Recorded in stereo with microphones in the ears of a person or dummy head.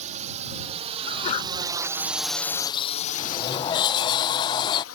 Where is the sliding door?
20° left (ahead or behind).